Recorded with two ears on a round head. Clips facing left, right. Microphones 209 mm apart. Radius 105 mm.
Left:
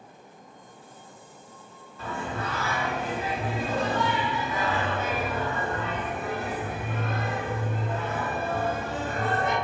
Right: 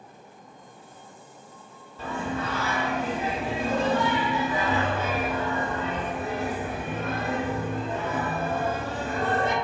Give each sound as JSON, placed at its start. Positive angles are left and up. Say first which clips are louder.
{"t": 2.0, "sound": "singing", "louder": "right 3 dB", "side_deg": -25, "distance_m": 0.9}